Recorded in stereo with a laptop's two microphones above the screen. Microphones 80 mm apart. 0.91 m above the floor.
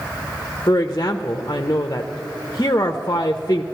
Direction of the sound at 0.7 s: 40° left (ahead or behind).